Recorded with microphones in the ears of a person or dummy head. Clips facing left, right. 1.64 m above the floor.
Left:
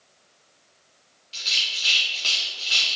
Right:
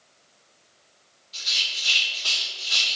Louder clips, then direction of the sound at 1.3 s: Left 1 dB; 40° left (ahead or behind).